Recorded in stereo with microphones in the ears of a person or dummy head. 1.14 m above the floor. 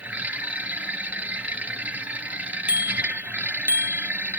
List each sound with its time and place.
0.0 s a machine running: 10° right (ahead or behind)
2.7 s a bicycle bell: 10° right (ahead or behind)